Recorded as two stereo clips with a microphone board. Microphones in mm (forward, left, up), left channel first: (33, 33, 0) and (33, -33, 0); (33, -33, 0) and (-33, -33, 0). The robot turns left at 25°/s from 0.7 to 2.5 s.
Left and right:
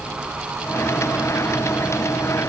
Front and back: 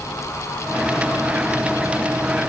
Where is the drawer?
No drawer in this recording.